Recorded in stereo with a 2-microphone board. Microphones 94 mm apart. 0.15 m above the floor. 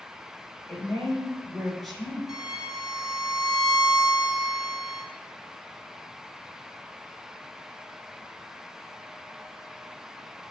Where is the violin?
5° right (ahead or behind), 0.8 m.